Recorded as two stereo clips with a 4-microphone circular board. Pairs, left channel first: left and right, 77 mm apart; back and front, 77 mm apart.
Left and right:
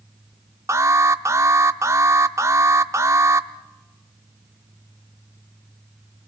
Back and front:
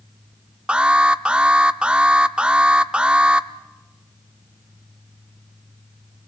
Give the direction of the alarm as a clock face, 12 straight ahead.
2 o'clock.